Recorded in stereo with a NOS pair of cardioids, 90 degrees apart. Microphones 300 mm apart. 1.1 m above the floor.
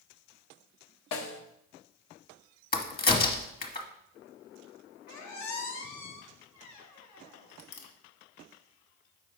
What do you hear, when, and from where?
1.1 s a snare drum: 65° left, 1.2 m
2.7 s a crack: 30° left, 1.3 m
5.1 s a squeak: 65° left, 1.3 m